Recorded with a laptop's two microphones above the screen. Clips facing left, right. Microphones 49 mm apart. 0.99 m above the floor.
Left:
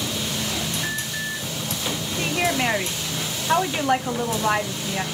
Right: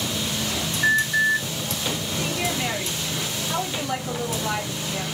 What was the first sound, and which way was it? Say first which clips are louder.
An alarm: right 9 dB; 25° right (ahead or behind).